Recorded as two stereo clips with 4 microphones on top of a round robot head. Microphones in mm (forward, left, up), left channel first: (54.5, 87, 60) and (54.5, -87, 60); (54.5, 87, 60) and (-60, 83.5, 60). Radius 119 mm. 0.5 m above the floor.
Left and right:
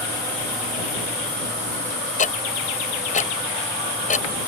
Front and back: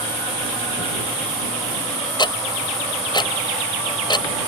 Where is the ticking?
50° left.